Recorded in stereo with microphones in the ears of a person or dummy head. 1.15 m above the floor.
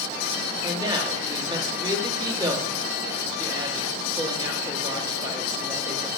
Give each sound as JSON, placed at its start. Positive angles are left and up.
{"t": 0.6, "sound": "a woman speaking", "side_deg": -20, "distance_m": 1.9}